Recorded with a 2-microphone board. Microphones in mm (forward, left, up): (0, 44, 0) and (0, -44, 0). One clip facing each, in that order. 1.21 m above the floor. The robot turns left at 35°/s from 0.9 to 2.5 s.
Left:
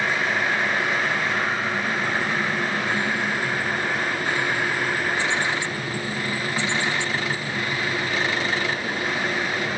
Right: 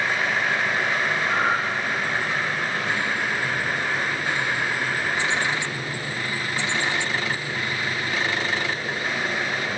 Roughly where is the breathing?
Right.